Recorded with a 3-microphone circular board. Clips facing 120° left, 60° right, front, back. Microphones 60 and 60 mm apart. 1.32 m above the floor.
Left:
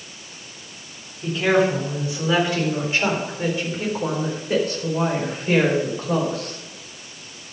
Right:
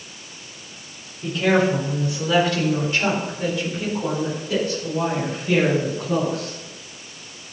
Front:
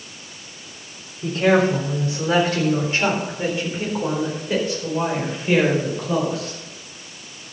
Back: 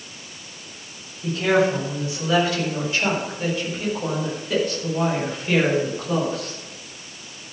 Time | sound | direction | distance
1.2 | a woman speaking | 40° left | 3.5 m